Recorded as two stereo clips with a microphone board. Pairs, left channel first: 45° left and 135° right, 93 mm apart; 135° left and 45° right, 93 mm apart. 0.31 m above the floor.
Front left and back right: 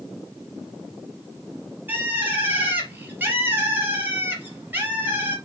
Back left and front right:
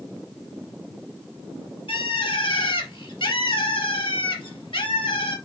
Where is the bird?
155° left, 3.5 m.